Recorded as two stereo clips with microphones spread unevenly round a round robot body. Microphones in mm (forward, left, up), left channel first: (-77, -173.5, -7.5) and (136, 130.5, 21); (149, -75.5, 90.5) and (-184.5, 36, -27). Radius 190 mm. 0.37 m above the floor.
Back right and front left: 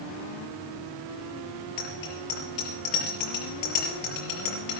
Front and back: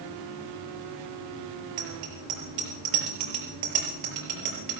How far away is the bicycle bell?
About 5 m.